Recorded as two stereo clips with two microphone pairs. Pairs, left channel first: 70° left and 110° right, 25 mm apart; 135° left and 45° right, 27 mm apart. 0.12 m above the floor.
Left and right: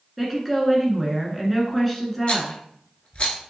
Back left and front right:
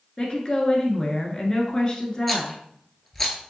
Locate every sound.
0.2 s a woman speaking: 155° left, 1.1 m
2.3 s a rattle: 55° left, 0.9 m